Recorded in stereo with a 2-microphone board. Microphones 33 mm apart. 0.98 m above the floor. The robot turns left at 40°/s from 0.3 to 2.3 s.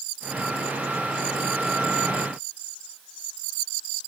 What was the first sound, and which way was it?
Only background noise.